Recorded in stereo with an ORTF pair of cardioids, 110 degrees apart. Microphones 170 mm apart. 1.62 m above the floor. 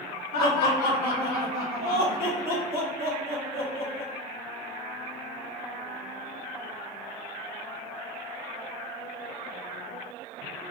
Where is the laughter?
60° left, 1.7 m.